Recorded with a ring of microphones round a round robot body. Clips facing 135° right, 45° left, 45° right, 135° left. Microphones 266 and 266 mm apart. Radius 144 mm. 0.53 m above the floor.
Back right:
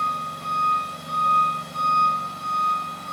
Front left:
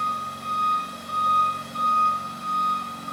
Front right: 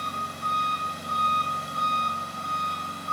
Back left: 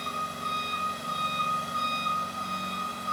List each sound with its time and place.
0.0 s an engine running: 175° right, 1.6 m